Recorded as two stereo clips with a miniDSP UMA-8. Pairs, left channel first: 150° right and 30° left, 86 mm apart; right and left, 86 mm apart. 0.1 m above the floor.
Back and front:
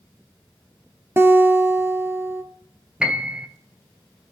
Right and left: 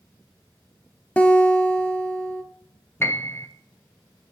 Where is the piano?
45° right, 1.7 m.